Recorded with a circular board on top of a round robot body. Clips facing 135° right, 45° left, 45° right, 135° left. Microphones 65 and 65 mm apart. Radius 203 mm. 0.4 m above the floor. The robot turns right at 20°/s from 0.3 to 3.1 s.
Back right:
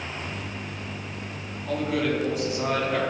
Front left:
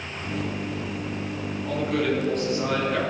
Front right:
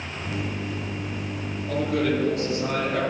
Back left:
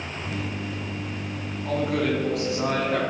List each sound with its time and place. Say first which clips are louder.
1.6 s a man speaking: even, even; 130° left, 4.5 m; by 3.0 s 155° left, 4.5 m